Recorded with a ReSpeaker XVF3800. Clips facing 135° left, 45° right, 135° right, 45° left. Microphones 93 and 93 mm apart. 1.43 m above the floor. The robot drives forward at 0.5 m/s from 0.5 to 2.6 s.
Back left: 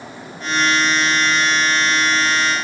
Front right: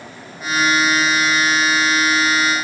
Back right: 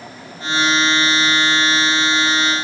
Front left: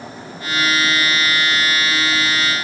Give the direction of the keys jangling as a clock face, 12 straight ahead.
No keys jangling in this recording.